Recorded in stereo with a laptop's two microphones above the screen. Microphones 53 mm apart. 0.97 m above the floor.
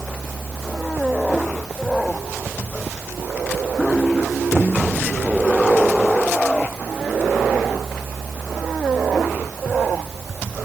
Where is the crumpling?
I don't hear crumpling.